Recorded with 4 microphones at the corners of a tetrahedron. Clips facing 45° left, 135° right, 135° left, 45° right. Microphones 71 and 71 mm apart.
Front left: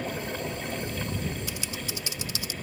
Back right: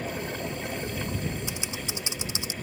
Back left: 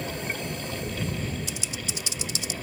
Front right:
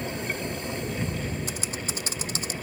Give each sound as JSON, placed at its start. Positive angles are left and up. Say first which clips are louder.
{"t": 1.5, "sound": "typing on a keyboard", "louder": "back right 1 dB, front right 2 dB", "azimuth_deg": -75}